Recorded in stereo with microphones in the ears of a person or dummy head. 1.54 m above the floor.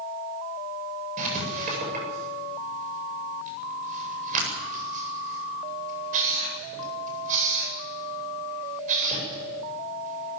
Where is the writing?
45° right (ahead or behind), 8 m.